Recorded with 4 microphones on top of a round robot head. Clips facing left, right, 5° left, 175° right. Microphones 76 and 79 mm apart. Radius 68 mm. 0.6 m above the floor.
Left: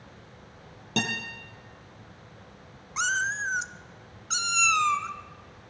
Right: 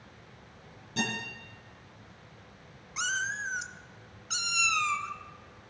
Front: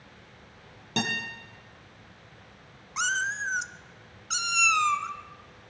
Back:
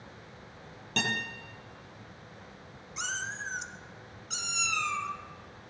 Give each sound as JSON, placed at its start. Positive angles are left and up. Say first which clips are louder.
{"t": 1.0, "sound": "a guitar", "louder": "left 3 dB, front 2 dB", "azimuth_deg": 80, "distance_m": 7.0}
{"t": 3.0, "sound": "a cat meowing", "louder": "left 5 dB, front 8 dB", "azimuth_deg": 40, "distance_m": 0.8}